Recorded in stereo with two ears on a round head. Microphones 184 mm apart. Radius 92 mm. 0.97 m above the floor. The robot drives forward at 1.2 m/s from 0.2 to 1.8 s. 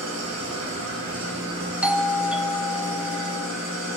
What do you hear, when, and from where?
0.0 s an engine running: 85° right, 4 m; by 4.0 s 60° right (ahead or behind), 4.5 m
1.8 s a doorbell: 5° right (ahead or behind), 0.7 m